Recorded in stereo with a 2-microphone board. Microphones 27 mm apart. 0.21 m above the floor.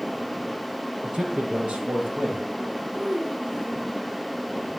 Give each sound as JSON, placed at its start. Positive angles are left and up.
{"t": 1.0, "sound": "a man speaking", "side_deg": -45, "distance_m": 4.0}
{"t": 2.9, "sound": "a child speaking", "side_deg": -60, "distance_m": 3.0}